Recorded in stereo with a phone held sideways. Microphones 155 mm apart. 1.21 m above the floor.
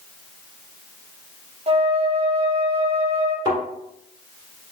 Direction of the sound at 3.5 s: 30° right (ahead or behind).